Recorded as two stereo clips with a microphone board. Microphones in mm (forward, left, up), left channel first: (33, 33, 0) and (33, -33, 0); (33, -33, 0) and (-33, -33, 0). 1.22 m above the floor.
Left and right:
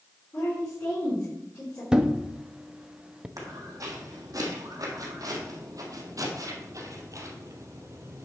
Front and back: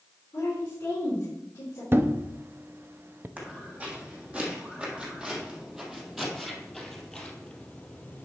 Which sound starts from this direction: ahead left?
A woman speaking, at 0.3 s.